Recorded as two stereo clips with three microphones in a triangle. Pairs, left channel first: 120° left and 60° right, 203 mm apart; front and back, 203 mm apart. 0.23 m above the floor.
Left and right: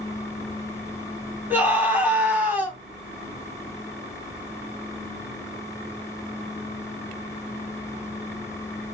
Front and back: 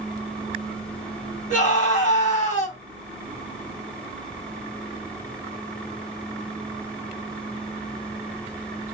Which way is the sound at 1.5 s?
15° left.